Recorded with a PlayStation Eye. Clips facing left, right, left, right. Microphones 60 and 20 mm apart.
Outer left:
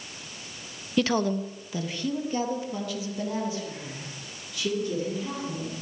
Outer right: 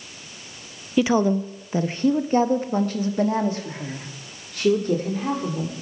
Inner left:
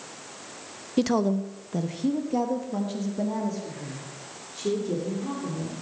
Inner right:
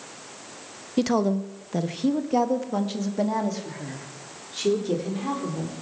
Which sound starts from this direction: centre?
A woman speaking, at 1.0 s.